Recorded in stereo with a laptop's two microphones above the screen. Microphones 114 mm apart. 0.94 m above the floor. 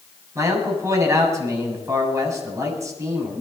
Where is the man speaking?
25° right (ahead or behind), 6.5 m.